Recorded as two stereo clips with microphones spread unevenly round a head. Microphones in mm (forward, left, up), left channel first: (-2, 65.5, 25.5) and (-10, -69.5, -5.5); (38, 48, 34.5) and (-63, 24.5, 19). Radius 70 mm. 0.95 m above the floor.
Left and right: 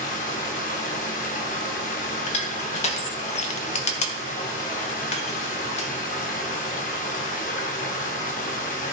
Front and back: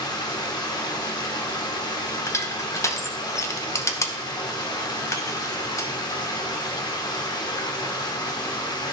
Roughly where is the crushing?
Ahead left.